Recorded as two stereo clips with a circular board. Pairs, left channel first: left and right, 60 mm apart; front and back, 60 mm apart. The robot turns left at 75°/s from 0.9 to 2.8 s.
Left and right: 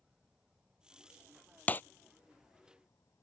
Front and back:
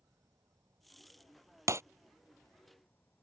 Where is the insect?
165° right; by 3.2 s 55° left.